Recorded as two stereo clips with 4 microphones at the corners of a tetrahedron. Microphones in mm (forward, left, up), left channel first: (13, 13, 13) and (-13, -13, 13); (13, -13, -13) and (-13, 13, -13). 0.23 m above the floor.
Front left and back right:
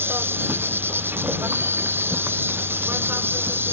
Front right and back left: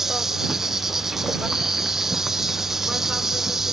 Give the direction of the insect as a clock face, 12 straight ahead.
5 o'clock.